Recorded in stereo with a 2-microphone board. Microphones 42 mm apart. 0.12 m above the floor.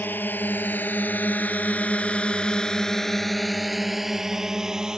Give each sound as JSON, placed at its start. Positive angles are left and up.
{"t": 0.0, "sound": "a drone", "side_deg": 55}